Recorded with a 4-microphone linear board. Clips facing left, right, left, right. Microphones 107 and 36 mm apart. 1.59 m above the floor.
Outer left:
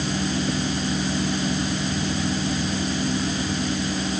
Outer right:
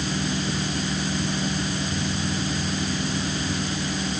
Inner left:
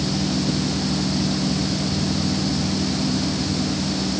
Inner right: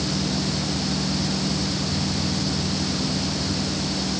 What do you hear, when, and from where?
Only background noise.